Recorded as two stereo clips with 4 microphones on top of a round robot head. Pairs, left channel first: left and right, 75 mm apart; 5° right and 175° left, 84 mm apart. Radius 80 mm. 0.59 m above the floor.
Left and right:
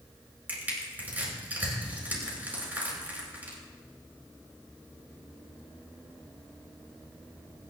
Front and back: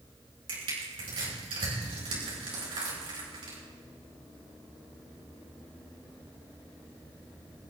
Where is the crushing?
160° right, 6.5 m.